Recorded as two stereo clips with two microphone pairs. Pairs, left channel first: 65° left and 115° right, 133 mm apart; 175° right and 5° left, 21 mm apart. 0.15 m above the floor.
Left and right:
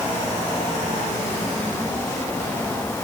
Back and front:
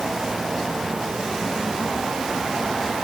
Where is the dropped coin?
No dropped coin in this recording.